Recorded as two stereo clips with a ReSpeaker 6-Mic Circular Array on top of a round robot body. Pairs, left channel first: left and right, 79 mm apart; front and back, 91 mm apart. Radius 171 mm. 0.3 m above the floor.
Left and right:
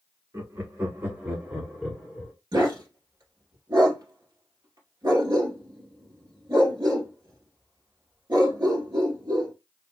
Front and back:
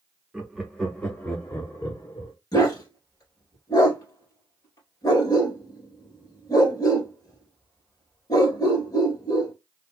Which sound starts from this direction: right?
Laughter, at 0.3 s.